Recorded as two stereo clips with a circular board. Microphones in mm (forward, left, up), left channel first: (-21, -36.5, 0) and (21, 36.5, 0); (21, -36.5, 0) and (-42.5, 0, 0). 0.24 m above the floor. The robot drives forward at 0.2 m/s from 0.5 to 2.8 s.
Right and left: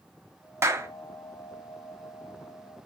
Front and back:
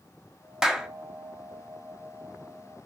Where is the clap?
75° left, 0.9 m; by 0.9 s 80° left, 0.9 m.